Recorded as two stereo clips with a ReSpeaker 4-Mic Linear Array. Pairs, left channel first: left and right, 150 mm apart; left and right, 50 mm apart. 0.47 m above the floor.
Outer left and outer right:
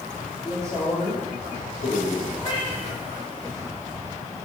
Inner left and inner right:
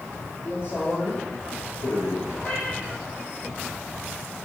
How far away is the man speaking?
About 9.5 m.